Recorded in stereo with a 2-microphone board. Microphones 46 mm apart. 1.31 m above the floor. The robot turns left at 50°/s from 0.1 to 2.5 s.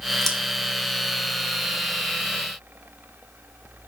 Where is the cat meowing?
I don't hear a cat meowing.